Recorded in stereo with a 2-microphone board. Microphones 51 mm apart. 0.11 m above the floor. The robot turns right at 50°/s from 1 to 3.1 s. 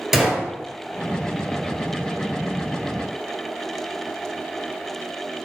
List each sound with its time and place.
0.1 s a gunshot: 5° right (ahead or behind), 1.0 m